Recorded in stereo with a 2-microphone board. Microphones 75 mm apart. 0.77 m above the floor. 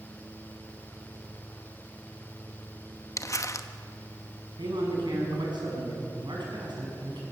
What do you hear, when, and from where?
3.2 s crumpling: 45° left (ahead or behind), 0.9 m
4.6 s a man speaking: 85° right, 6.5 m